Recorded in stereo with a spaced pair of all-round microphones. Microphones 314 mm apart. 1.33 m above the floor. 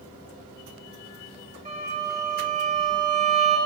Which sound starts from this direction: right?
A violin, at 1.6 s.